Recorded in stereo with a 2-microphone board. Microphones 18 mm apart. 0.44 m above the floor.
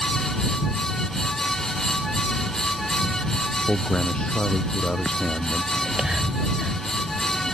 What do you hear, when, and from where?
3.7 s a man speaking: 60° left (ahead or behind); by 5.6 s 65° left (ahead or behind)
5.7 s whispering: 55° right (ahead or behind)